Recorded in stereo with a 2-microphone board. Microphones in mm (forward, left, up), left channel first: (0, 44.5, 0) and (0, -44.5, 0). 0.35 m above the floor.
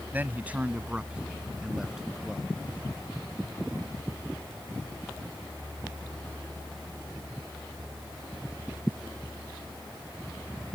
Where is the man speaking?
20° right (ahead or behind); by 2.6 s 5° right (ahead or behind).